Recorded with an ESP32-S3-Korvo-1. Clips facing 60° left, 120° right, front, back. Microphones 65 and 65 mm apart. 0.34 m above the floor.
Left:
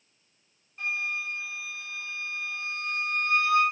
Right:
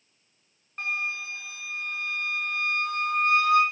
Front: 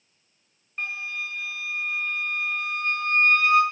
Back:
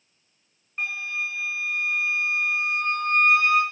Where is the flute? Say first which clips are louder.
Right 1 dB, back 2 dB; 95° right, 2.5 m.